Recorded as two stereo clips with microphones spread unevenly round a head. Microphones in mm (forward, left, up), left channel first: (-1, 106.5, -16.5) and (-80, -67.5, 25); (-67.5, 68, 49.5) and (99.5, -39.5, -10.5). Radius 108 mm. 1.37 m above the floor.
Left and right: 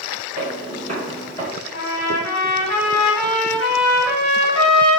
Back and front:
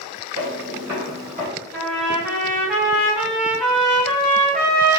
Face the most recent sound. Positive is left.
turn(degrees=65)